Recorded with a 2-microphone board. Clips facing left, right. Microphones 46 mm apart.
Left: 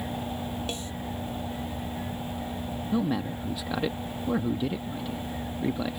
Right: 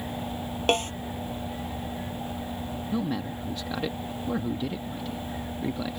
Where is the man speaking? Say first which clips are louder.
Left 3 dB; 10° left (ahead or behind).